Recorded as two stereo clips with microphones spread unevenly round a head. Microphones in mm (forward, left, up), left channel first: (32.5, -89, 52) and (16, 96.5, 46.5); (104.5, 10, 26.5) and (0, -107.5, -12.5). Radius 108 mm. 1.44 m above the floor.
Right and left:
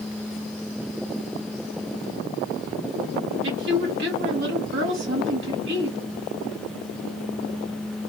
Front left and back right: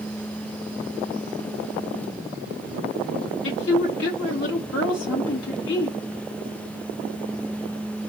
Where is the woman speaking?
70° left, 3 m.